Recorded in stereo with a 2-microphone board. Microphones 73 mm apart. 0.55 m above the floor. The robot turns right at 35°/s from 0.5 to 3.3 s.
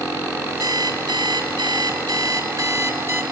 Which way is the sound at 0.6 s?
125° right.